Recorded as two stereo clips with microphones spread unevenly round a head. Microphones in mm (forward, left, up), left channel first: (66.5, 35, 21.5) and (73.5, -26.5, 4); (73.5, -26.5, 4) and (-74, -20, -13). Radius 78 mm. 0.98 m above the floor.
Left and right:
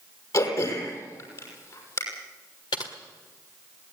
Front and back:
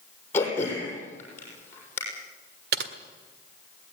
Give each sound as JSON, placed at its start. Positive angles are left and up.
{"t": 0.3, "sound": "throat clearing", "azimuth_deg": 75, "distance_m": 6.0}
{"t": 2.7, "sound": "typing on a keyboard", "azimuth_deg": 145, "distance_m": 1.6}